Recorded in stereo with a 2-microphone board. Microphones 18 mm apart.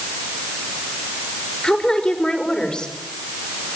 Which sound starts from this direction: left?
A woman speaking, at 1.6 s.